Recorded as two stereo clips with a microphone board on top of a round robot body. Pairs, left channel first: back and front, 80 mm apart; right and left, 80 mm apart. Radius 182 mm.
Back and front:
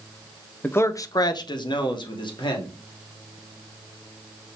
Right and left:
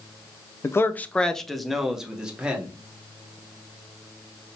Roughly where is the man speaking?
Behind right.